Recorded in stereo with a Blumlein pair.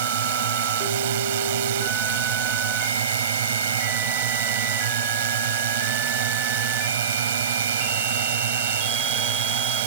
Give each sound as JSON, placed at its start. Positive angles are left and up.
{"t": 0.0, "sound": "a drone", "azimuth_deg": -55}